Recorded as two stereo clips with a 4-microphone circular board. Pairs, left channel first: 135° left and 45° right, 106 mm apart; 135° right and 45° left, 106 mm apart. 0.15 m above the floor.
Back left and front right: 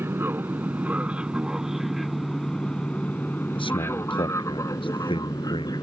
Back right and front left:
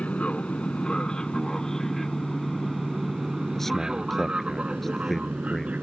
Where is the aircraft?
75° right; by 5.8 s 115° left.